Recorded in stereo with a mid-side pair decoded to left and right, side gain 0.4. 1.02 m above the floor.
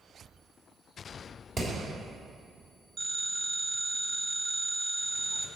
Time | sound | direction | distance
1.6 | hammering | 55° right | 3 m
3.0 | a phone ringing | 65° right | 1.5 m